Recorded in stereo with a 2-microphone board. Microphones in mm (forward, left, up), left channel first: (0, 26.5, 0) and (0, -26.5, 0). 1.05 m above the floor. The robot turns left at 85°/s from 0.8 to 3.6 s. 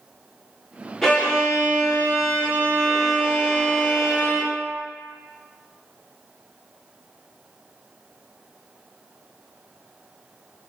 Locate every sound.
1.0 s a violin: 5° left, 1.4 m; by 4.5 s 145° left, 1.4 m